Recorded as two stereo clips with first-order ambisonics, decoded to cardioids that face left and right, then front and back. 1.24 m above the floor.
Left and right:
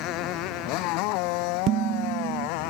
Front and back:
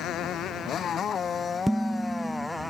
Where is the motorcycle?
55° left; by 2.7 s 90° left.